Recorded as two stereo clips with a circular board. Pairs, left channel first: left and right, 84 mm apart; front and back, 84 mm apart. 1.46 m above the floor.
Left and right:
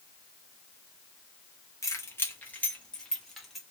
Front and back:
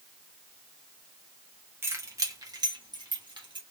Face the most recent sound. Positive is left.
turn(degrees=180)